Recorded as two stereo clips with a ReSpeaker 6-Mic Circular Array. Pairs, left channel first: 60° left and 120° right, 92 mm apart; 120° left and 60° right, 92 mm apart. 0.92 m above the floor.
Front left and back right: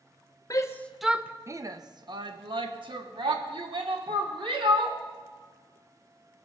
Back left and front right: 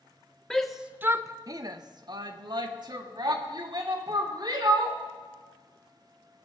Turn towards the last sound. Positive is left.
turn(degrees=-100)